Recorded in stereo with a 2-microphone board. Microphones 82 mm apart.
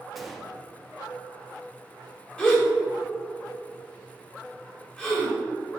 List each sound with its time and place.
0.1 s a gunshot: centre (ahead or behind), 0.9 m
2.4 s a gasp: 15° left (ahead or behind), 2 m